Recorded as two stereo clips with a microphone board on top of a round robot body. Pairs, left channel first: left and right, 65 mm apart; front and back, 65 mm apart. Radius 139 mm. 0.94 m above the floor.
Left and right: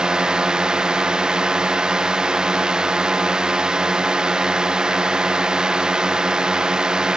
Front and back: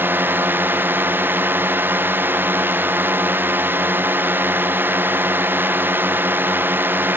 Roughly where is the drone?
Behind.